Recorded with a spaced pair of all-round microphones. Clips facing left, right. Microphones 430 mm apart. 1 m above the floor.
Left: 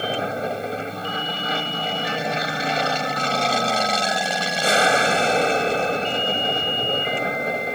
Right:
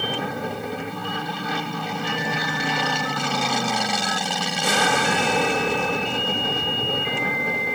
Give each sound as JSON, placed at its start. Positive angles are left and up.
{"t": 0.0, "sound": "an aircraft", "side_deg": -10}